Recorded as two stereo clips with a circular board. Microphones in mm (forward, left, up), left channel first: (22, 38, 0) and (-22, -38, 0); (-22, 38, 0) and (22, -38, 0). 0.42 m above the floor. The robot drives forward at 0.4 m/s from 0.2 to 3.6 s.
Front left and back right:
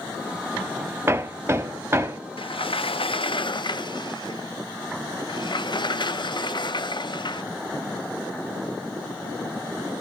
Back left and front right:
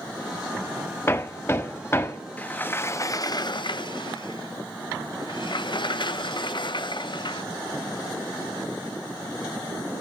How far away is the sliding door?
About 0.7 m.